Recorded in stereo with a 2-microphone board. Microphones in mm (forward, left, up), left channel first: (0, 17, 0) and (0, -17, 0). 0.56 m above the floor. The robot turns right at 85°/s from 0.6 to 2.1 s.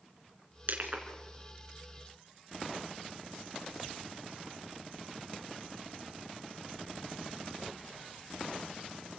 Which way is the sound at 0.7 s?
65° right (ahead or behind).